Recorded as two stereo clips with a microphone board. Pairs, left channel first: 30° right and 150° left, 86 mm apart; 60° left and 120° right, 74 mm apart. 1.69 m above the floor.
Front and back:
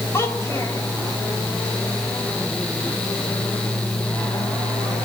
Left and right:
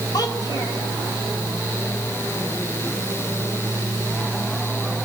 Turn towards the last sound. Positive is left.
turn(degrees=30)